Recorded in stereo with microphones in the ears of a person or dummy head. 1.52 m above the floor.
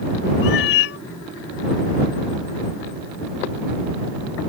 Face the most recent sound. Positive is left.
turn(degrees=60)  # may be behind; listen again after turning